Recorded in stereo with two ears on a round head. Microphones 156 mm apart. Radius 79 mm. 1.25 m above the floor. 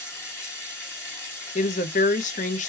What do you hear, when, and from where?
0.0 s running water: 15° left (ahead or behind), 2.5 m
1.6 s a woman speaking: 45° left (ahead or behind), 0.9 m